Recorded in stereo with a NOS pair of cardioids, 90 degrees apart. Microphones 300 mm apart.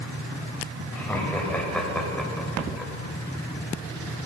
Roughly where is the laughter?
Ahead.